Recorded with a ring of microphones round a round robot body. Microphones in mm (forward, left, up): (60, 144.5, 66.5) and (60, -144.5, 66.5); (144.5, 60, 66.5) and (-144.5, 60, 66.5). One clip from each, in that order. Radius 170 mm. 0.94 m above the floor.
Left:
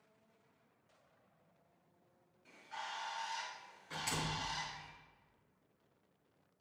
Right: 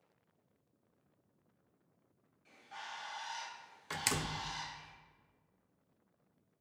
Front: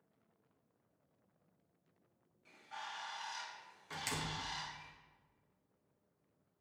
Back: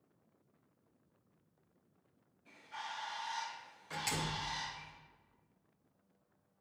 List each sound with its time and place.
2.5 s a bird: 5° left, 4 m
3.9 s a door slam: 80° right, 0.7 m